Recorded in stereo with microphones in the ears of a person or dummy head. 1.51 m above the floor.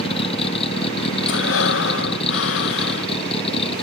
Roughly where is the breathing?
Left.